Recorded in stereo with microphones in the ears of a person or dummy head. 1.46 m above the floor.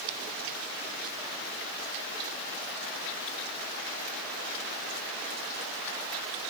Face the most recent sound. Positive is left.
No sound to turn to.